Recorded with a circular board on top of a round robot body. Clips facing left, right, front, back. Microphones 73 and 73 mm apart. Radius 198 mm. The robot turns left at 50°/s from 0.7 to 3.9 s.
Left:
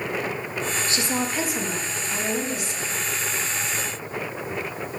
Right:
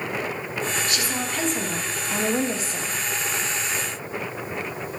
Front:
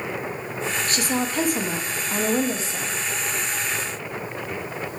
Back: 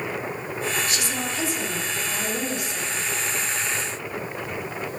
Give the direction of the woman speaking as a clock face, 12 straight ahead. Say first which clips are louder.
Left 2 dB, front 4 dB; 11 o'clock.